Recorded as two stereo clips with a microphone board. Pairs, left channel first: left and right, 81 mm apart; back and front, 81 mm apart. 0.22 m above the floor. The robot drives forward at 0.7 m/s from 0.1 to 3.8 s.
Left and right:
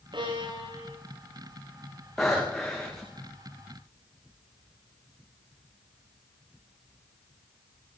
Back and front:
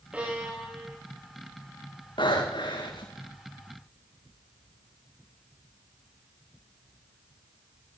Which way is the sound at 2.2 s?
175° left.